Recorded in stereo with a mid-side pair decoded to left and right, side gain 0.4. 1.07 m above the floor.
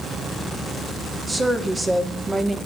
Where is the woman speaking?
30° right, 2.5 m.